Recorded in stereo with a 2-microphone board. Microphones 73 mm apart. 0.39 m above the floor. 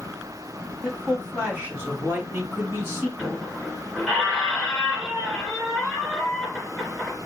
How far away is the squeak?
About 2.5 m.